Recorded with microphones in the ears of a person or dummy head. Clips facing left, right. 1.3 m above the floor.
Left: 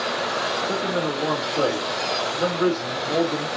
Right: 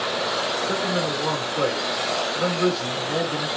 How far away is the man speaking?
About 3 m.